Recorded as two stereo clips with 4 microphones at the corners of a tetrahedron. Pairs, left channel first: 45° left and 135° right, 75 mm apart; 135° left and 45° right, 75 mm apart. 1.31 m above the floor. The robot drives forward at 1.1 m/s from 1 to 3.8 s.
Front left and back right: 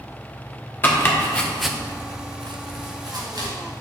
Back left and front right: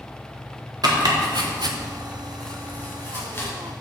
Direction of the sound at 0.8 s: 20° right.